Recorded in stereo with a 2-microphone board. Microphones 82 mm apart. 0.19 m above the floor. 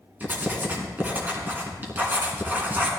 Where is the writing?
25° right (ahead or behind), 2.5 m.